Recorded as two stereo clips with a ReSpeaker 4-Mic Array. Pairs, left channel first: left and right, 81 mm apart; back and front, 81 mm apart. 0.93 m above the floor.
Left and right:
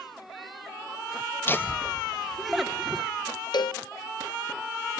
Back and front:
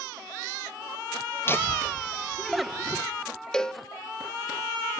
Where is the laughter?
135° left, 1.1 m; by 3.0 s 45° right, 0.9 m.